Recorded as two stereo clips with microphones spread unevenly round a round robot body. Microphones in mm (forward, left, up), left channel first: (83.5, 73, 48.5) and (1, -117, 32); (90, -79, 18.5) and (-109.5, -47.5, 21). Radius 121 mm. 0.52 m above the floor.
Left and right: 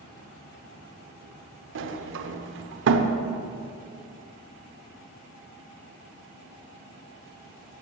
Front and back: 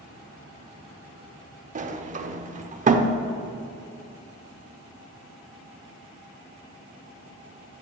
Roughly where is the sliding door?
Behind right.